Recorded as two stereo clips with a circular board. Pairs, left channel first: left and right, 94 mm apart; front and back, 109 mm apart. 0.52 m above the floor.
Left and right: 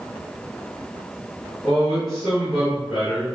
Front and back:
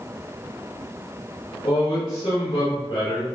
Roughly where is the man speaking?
Ahead.